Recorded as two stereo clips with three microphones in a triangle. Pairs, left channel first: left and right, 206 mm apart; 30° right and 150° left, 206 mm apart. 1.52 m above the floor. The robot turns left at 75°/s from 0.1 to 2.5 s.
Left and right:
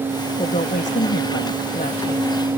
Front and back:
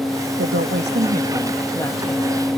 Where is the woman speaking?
155° left; by 2.4 s straight ahead.